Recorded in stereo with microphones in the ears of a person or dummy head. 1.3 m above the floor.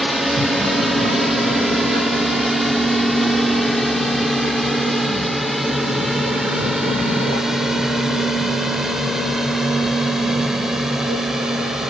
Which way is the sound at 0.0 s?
5° right (ahead or behind).